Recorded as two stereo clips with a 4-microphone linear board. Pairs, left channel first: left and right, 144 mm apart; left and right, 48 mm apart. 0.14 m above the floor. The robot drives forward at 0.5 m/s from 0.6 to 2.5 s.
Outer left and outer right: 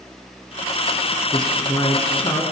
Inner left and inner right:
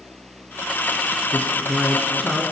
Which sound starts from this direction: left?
A man speaking, at 1.3 s.